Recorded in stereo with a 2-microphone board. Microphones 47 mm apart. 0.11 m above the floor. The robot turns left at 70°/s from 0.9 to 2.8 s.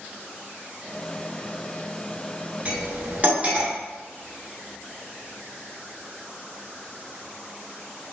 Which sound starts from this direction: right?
Cutlery clinking, at 2.6 s.